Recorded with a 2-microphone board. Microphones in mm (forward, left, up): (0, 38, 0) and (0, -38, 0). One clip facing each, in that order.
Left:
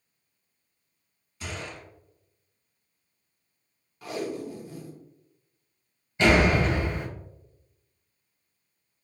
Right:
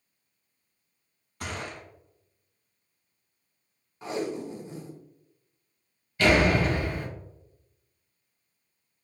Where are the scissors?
I don't hear scissors.